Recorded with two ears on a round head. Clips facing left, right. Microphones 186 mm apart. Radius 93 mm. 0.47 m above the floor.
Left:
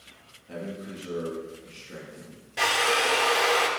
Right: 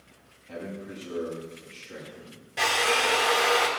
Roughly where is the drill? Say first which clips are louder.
Even; centre.